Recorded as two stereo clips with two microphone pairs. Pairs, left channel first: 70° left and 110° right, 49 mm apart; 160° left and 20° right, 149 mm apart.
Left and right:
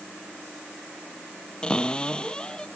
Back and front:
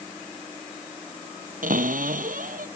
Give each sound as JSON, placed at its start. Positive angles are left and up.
{"t": 1.6, "sound": "a cupboard door", "azimuth_deg": 5}